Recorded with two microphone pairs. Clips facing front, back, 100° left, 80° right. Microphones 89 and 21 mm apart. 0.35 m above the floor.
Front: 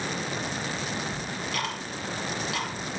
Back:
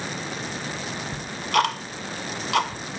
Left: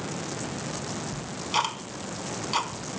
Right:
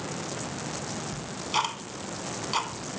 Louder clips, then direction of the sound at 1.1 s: Back 9 dB, left 1 dB; 165° right.